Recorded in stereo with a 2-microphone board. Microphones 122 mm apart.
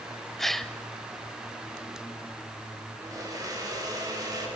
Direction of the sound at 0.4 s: 5° left (ahead or behind).